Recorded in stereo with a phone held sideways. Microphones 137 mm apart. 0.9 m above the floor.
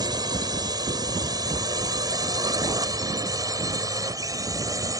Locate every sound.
0.0 s a drone: 30° right (ahead or behind); by 5.0 s 25° right (ahead or behind)